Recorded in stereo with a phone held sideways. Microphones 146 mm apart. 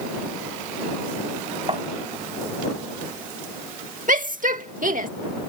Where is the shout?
65° right (ahead or behind).